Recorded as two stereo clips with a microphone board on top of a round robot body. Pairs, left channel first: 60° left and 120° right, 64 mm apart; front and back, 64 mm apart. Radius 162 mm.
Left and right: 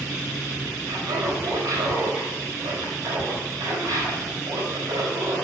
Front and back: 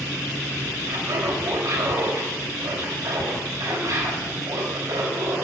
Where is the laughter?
150° right, 4.5 m.